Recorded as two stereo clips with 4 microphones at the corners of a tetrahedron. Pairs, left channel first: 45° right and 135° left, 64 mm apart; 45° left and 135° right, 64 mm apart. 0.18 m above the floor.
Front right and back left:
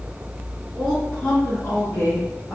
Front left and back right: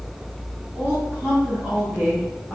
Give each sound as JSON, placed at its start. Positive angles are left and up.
{"t": 0.8, "sound": "a woman speaking", "azimuth_deg": -130, "distance_m": 1.5}